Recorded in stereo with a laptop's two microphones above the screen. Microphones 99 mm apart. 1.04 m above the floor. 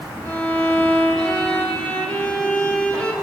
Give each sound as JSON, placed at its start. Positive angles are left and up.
{"t": 0.2, "sound": "a violin", "side_deg": 15, "distance_m": 2.5}